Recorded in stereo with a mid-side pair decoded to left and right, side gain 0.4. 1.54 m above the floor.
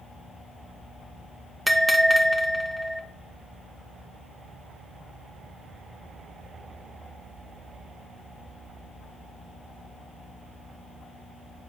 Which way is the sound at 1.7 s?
15° right.